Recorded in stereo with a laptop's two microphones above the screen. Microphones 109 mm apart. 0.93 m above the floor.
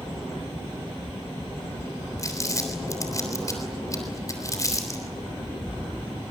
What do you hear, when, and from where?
2.2 s crumpling: 30° left (ahead or behind), 3.5 m